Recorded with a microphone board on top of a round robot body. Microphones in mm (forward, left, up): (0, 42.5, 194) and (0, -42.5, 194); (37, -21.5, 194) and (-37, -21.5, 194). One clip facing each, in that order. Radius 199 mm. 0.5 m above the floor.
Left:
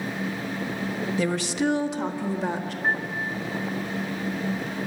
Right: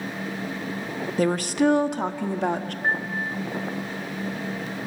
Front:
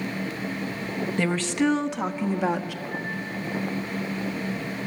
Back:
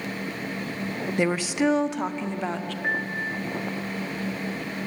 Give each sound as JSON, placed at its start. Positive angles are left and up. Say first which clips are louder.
{"t": 1.2, "sound": "a woman speaking", "louder": "right 5 dB, back 1 dB", "azimuth_deg": -110, "distance_m": 1.4}
{"t": 2.8, "sound": "a piano", "louder": "right 1 dB, back 4 dB", "azimuth_deg": -155, "distance_m": 1.9}